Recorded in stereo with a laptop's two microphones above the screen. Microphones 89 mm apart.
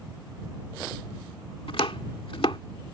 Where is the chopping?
85° left.